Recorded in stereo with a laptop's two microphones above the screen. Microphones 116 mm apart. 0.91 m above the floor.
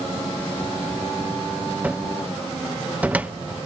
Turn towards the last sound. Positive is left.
turn(degrees=-15)  # may be behind; listen again after turning